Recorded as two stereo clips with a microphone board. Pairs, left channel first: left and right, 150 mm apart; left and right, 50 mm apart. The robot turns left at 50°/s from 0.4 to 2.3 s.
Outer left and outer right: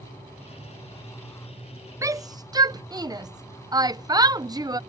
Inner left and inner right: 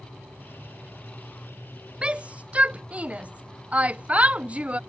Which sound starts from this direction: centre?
A shout, at 2.0 s.